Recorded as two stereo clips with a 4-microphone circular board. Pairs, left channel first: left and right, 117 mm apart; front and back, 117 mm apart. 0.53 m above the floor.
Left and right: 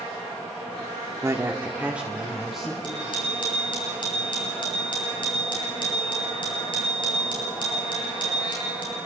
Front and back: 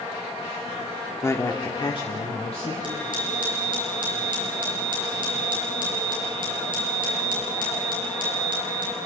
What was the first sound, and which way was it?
A man speaking, 50° right.